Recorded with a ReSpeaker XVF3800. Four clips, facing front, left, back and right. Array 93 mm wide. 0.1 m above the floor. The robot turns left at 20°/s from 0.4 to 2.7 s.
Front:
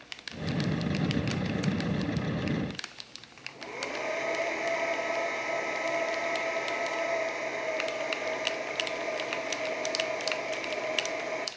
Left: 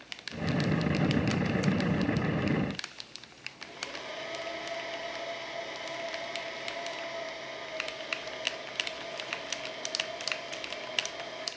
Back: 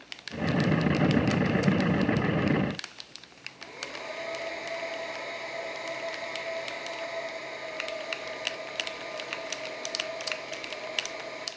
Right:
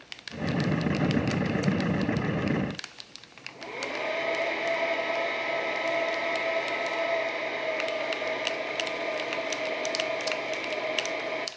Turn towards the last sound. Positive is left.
turn(degrees=-65)